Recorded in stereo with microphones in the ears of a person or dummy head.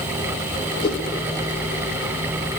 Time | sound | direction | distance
0.8 | a whoosh | 25° left (ahead or behind) | 3 m